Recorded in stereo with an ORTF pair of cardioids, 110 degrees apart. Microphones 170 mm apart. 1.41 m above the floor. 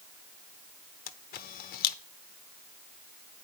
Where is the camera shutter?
65° left, 0.9 m.